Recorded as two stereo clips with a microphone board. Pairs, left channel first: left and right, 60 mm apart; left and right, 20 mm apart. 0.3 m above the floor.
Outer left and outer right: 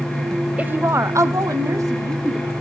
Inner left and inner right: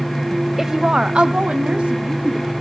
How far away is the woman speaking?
About 1.1 m.